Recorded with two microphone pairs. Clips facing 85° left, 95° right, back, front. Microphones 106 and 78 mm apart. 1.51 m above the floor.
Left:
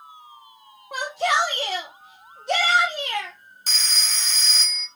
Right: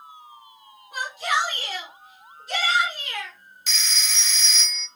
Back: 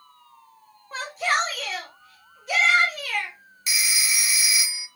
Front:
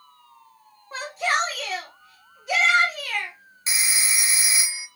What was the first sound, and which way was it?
A shout, 85° left.